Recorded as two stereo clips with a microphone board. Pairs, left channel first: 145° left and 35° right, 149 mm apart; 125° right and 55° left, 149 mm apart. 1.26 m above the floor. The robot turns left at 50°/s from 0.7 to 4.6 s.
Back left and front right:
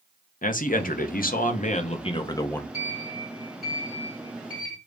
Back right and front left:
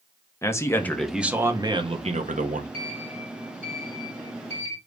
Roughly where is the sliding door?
Left.